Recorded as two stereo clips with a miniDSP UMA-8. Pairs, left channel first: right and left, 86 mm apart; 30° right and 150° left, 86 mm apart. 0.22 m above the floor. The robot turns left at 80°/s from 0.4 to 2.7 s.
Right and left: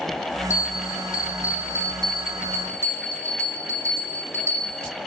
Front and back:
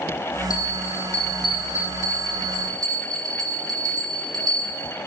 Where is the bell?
45° right, 1.7 m; by 4.9 s 140° left, 1.7 m.